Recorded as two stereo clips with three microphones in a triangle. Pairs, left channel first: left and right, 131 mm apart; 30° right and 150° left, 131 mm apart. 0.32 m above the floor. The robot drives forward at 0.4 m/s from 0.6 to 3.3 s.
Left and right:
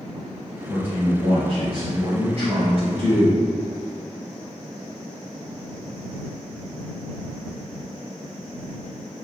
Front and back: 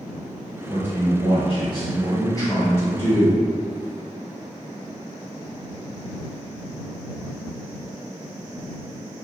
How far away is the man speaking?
About 1.8 m.